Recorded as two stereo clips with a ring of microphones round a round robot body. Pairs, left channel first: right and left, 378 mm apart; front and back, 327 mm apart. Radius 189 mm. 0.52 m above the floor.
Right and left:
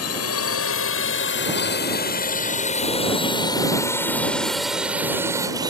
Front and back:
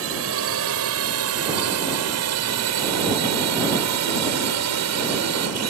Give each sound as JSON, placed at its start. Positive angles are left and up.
{"t": 0.0, "sound": "a drone", "azimuth_deg": -135}